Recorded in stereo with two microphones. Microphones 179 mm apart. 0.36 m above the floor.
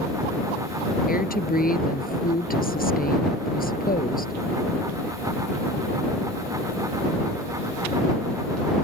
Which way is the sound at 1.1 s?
55° left (ahead or behind).